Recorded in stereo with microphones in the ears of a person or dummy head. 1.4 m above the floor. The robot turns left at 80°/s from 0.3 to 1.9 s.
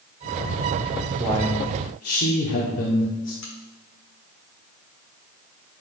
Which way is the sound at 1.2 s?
175° right.